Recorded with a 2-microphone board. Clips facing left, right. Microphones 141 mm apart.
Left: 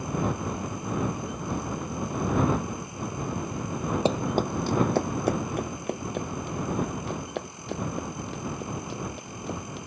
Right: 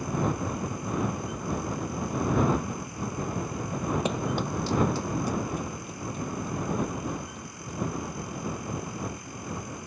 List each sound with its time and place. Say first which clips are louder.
4.0 s running footsteps: left 4 dB; 30° left (ahead or behind); by 9.8 s 80° left